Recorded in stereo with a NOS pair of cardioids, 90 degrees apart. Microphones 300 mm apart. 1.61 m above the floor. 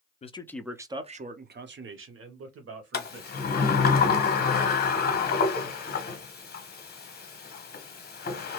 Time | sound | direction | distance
0.2 | a man speaking | 25° left | 0.5 m
2.9 | a sliding door | 30° left | 1.1 m